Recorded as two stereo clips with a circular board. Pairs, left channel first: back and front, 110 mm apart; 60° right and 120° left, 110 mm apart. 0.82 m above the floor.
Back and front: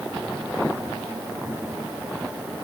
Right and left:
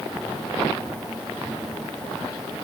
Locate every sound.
Only background noise.